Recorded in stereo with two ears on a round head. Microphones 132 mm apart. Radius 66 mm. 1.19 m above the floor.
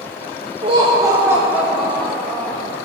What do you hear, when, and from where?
0.6 s laughter: 40° right (ahead or behind), 1.3 m; by 2.7 s 15° left (ahead or behind), 1.8 m